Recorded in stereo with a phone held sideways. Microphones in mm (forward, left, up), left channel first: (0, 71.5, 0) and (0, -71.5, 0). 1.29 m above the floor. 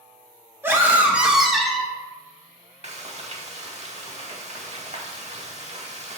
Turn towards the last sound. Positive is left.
turn(degrees=-50)  # may be behind; listen again after turning